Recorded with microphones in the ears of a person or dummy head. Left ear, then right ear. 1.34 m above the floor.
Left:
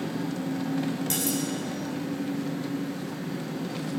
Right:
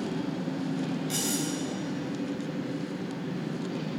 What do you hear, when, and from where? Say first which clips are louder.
0.0 s an engine running: left 1 dB; 60° left (ahead or behind), 1.0 m
1.1 s cutlery clinking: even; 35° left (ahead or behind), 2 m